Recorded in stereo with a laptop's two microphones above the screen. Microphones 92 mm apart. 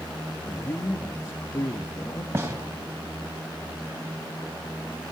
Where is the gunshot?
30° right (ahead or behind), 3 m.